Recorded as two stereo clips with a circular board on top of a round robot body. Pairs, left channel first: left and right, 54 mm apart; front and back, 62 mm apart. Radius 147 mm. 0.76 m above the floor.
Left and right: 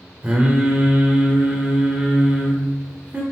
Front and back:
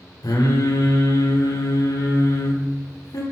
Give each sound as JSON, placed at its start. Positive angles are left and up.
{"t": 0.2, "sound": "singing", "azimuth_deg": -20, "distance_m": 2.5}